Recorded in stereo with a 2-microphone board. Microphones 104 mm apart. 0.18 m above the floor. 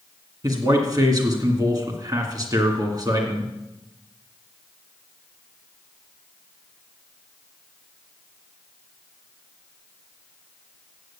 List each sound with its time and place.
0.4 s a man speaking: 40° right (ahead or behind), 2 m